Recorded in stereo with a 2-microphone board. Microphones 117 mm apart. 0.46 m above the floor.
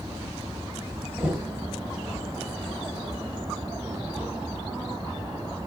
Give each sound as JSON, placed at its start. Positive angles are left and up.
{"t": 1.2, "sound": "knocking", "side_deg": -10, "distance_m": 1.6}